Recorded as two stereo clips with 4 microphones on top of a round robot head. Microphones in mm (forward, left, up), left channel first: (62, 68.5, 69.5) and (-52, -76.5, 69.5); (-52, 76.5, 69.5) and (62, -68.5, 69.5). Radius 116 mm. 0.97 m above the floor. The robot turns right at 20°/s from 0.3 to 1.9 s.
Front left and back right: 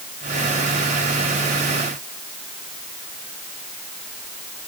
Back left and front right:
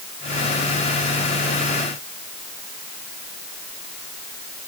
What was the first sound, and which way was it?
Only background noise.